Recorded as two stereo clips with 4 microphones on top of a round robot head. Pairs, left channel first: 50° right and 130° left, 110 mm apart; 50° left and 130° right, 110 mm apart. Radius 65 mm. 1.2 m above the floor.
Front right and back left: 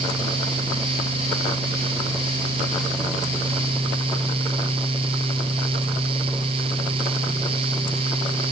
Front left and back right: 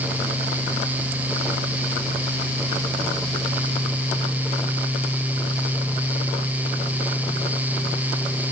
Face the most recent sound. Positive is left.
No sound to turn to.